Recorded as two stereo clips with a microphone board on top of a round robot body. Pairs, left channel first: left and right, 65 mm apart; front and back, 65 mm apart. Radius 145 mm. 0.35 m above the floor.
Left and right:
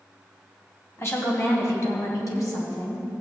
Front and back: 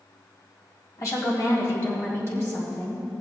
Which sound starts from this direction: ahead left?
A woman speaking, at 1.0 s.